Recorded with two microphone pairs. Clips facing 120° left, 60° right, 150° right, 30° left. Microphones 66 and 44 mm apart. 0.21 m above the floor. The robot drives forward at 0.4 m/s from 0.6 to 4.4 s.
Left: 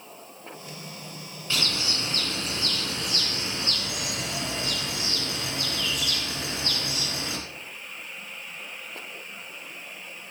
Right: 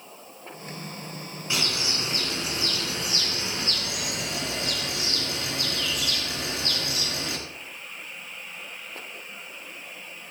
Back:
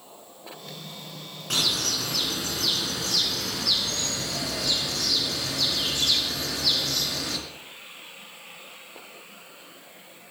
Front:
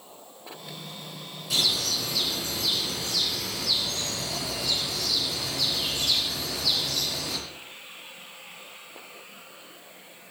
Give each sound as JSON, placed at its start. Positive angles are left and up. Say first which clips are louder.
{"t": 1.5, "sound": "a bird", "louder": "even, even", "azimuth_deg": -130, "distance_m": 2.5}